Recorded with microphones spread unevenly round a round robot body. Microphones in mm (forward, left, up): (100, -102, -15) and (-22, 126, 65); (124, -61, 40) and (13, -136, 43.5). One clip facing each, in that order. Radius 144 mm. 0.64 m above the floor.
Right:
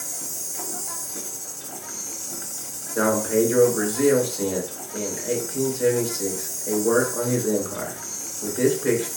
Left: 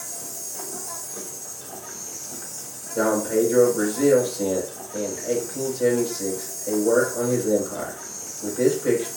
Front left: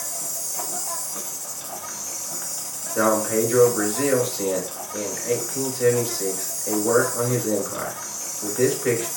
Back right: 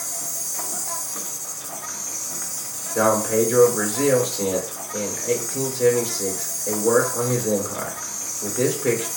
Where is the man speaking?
90° right, 2.5 m.